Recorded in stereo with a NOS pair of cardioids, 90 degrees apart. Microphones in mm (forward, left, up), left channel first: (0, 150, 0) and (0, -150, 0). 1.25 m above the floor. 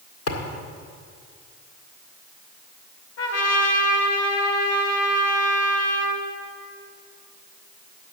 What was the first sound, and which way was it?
A thud, 55° left.